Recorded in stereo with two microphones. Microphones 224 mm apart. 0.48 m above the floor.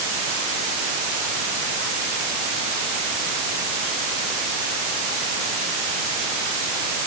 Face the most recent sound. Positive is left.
No sound to turn to.